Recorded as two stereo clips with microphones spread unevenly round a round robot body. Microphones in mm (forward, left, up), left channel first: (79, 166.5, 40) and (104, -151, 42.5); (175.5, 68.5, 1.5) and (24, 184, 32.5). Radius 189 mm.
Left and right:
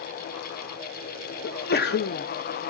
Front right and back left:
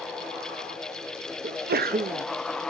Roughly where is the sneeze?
Behind left.